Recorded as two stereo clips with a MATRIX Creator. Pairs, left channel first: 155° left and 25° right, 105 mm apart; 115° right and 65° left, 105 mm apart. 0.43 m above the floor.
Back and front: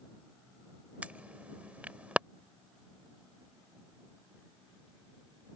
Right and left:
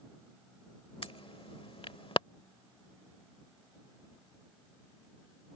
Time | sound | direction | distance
1.0 | an alarm | 100° right | ?